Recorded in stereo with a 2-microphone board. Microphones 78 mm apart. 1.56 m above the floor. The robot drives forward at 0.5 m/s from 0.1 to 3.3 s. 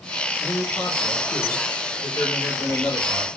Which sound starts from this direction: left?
A man speaking, at 0.4 s.